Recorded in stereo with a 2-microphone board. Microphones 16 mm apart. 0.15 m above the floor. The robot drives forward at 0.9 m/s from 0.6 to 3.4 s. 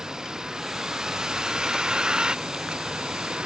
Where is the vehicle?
45° right (ahead or behind); by 3.5 s 85° right.